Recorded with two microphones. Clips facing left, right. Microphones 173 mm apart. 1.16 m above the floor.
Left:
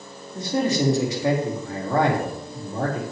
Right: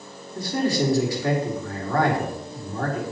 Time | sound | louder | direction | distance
0.3 | a man speaking | left 1 dB | 25° left (ahead or behind) | 2 m